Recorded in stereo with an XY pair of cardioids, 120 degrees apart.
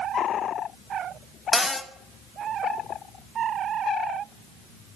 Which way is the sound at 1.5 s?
10° left.